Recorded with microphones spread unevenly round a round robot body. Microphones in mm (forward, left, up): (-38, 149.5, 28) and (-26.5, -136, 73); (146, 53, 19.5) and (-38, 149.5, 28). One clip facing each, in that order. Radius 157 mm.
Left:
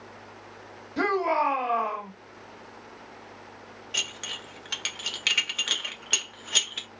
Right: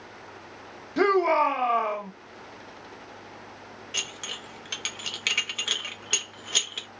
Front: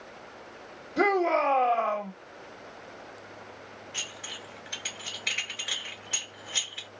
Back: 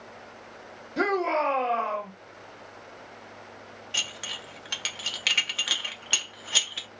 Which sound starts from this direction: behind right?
A shout, at 1.0 s.